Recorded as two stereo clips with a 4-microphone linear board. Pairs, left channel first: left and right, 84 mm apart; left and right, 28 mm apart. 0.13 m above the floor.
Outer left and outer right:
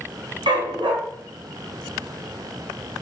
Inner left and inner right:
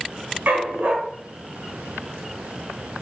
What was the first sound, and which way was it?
A dog barking, 65° right (ahead or behind).